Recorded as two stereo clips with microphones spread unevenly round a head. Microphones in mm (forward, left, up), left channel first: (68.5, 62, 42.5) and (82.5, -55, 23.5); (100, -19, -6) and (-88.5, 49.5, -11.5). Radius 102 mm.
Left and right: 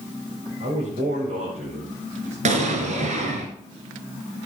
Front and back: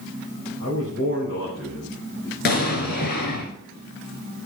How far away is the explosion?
About 2.5 m.